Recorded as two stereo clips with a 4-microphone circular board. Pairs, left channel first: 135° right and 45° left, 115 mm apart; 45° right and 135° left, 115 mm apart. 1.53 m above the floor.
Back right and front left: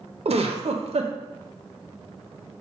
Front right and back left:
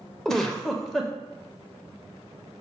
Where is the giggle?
40° left, 0.6 m.